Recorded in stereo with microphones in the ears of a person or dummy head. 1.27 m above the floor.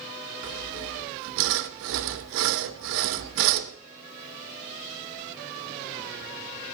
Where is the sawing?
70° right (ahead or behind), 0.8 m.